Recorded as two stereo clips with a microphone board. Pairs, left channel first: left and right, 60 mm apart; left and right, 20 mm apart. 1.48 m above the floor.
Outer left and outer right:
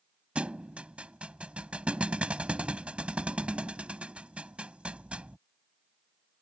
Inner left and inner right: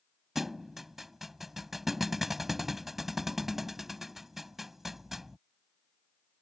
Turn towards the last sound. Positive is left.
turn(degrees=-20)  # may be behind; listen again after turning